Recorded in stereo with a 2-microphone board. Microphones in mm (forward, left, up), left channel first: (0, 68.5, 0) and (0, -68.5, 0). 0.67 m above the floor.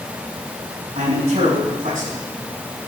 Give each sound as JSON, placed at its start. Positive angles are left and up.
{"t": 0.9, "sound": "a man speaking", "side_deg": -70, "distance_m": 6.0}